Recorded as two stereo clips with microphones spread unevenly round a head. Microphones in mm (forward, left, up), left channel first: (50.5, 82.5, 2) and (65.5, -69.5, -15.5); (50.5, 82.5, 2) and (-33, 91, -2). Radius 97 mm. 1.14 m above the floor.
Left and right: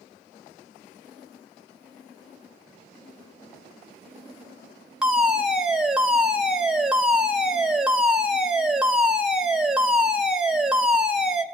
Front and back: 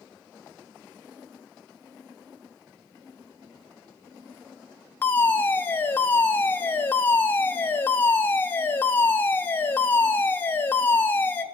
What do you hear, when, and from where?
5.0 s a fire alarm: 30° right, 1.5 m